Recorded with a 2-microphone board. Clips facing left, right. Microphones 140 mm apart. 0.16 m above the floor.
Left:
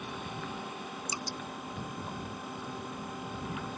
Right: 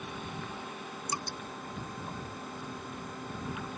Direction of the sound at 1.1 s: 55° right (ahead or behind).